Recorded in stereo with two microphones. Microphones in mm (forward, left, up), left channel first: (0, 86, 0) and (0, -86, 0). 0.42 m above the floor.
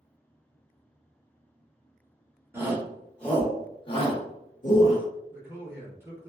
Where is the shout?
15° right (ahead or behind), 1.0 m; by 5.0 s 55° left (ahead or behind), 1.3 m.